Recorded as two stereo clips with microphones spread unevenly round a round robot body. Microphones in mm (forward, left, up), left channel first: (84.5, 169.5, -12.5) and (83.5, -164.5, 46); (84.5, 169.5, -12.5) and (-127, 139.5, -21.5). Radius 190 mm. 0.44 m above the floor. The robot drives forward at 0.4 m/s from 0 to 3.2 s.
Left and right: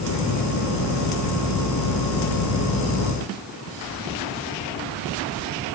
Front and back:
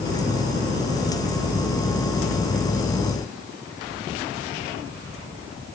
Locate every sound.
Only background noise.